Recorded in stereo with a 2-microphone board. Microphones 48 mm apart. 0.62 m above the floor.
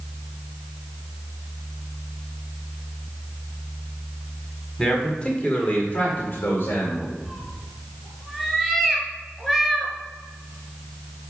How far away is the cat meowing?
About 1.7 m.